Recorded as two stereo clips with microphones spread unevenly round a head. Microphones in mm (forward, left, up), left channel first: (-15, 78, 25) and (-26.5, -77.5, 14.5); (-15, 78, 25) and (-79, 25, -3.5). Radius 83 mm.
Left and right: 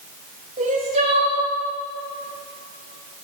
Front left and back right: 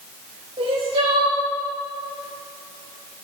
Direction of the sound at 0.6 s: 135° right.